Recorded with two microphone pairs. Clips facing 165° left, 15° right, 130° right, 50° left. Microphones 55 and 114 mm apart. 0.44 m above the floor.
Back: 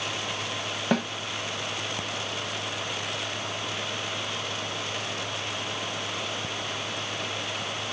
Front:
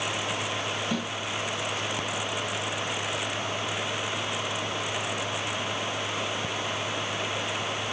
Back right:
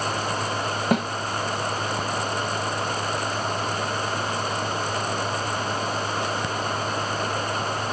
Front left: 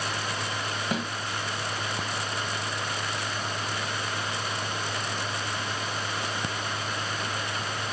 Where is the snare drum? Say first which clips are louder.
Back 9 dB, back right 9 dB; 160° right, 0.8 m.